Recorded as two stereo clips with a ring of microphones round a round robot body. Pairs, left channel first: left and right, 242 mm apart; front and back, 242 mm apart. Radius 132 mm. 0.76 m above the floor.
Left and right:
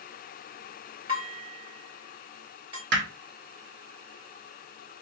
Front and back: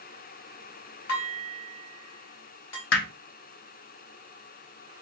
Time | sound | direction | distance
1.1 | dishes clattering | 20° right | 1.8 m
2.9 | hammering | 40° right | 1.0 m